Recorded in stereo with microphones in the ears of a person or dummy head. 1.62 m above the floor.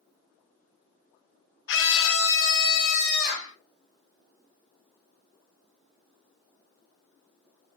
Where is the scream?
70° left (ahead or behind), 0.8 m; by 3.5 s 65° left (ahead or behind), 1.5 m.